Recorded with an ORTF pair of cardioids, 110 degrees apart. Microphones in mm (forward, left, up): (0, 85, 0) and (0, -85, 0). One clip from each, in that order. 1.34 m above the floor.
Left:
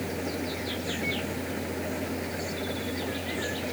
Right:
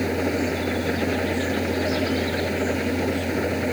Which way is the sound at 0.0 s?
50° right.